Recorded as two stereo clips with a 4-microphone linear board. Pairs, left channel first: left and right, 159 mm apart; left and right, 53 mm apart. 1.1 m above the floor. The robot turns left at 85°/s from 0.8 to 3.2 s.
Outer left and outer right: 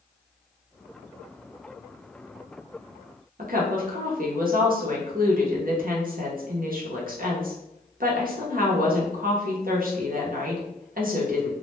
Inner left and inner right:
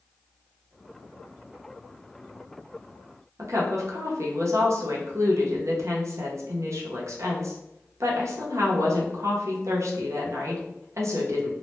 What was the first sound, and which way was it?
A woman speaking, 65° right (ahead or behind).